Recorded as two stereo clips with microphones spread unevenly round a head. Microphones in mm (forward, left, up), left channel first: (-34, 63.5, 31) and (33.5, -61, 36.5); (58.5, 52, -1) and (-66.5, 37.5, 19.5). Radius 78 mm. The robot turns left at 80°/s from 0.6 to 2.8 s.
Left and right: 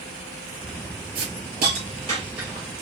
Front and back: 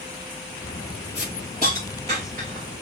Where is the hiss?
50° right, 3 m; by 2.6 s 170° right, 3 m.